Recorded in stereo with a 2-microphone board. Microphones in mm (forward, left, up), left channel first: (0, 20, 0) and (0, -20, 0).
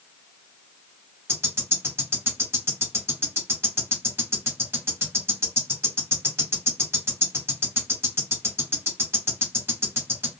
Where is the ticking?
75° right (ahead or behind), 1.5 m.